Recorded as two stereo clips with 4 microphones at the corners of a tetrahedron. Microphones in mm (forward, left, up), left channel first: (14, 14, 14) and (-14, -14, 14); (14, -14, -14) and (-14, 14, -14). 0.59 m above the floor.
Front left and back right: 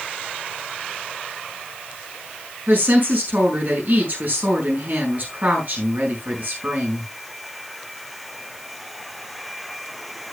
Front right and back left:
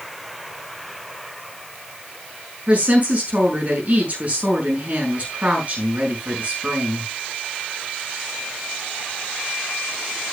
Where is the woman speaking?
175° right, 5.5 m.